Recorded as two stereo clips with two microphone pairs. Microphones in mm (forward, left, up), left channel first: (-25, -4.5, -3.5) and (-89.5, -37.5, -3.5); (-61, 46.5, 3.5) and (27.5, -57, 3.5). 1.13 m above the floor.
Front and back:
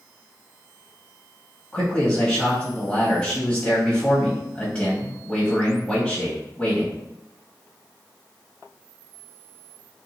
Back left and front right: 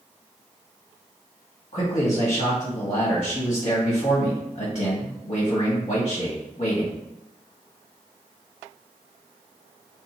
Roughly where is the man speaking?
Left.